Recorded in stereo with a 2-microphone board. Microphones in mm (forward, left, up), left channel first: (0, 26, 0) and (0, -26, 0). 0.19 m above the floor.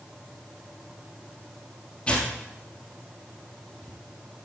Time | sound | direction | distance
2.1 | tearing paper | 25° left (ahead or behind) | 2.5 m